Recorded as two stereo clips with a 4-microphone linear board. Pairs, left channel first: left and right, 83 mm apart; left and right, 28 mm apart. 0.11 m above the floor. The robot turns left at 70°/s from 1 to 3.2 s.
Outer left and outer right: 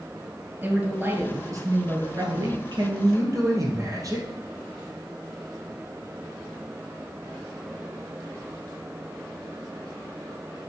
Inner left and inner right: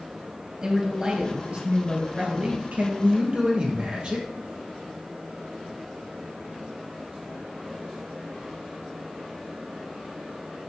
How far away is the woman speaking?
About 2.5 m.